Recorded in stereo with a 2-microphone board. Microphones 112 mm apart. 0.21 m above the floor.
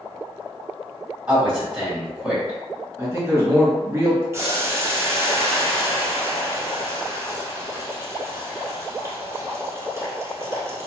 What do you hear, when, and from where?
1.3 s a man speaking: 10° right (ahead or behind), 1.5 m
3.0 s a man speaking: 25° right (ahead or behind), 1.2 m
4.3 s boiling: 25° right (ahead or behind), 0.8 m